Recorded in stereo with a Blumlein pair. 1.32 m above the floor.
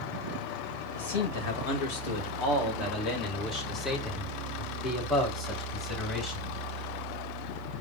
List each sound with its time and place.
0.9 s a man speaking: 55° left, 1.7 m; by 6.5 s 10° left, 4 m